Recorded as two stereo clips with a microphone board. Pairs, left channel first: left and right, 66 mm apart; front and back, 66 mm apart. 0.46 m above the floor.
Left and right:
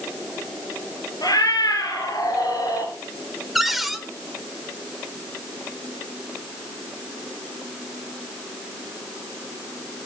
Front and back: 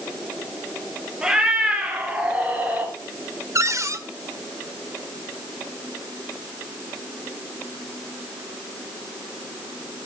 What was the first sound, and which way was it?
A cat meowing, 100° left.